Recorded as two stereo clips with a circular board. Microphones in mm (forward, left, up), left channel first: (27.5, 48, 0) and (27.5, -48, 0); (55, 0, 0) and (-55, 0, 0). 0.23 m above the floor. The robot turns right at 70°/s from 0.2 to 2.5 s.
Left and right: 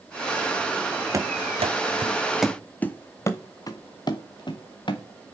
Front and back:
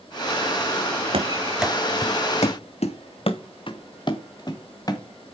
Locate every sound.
1.1 s running footsteps: 145° right, 1.3 m; by 5.0 s 55° left, 2.5 m